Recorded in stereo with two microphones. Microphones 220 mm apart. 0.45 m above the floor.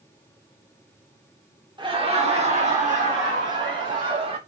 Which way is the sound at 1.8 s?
20° right (ahead or behind).